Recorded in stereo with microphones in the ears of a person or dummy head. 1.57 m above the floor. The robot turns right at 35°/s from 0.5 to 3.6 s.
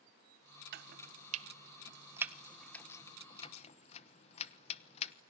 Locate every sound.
0.7 s chopping: 60° right (ahead or behind), 1.1 m; by 5.1 s 35° left (ahead or behind), 1.1 m